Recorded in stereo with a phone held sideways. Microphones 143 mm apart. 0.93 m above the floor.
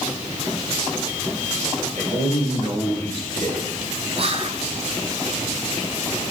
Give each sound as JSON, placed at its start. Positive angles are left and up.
{"t": 1.9, "sound": "a man speaking", "side_deg": -55, "distance_m": 4.5}
{"t": 4.2, "sound": "whispering", "side_deg": -45, "distance_m": 1.0}